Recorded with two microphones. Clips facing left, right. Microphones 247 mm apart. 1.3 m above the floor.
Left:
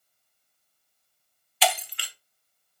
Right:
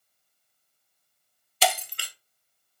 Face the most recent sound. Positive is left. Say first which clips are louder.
# even
turn(degrees=-50)  # may be behind; listen again after turning